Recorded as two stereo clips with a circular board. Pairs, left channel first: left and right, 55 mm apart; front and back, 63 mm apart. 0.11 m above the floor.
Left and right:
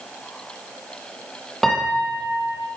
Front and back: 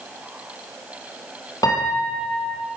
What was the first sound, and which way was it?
A piano, 5° left.